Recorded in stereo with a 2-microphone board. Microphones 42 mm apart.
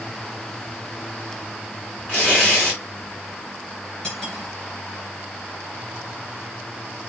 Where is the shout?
I don't hear a shout.